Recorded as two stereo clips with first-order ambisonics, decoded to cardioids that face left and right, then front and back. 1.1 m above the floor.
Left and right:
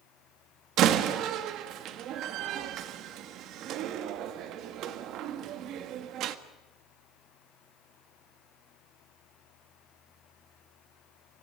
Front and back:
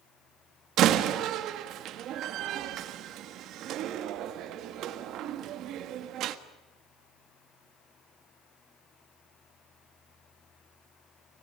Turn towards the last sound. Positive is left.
turn(degrees=-135)